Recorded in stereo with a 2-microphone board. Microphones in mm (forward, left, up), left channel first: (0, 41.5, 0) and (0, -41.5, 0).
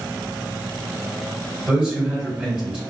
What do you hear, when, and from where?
1.7 s a man speaking: 10° right (ahead or behind), 1.9 m